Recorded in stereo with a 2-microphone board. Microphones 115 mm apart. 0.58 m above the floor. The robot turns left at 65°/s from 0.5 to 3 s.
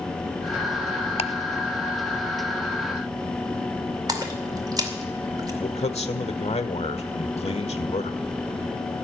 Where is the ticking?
65° left (ahead or behind), 0.6 m; by 1.3 s 60° left (ahead or behind), 0.6 m.